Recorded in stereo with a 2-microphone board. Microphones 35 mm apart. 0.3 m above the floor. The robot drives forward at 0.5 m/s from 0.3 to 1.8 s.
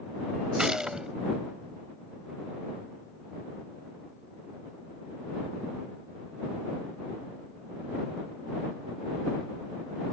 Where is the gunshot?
25° right (ahead or behind); by 1.1 s 20° right (ahead or behind).